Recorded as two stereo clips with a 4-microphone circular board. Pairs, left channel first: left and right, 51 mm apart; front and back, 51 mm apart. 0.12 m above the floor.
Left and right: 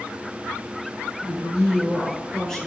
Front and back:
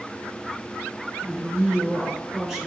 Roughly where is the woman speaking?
Behind.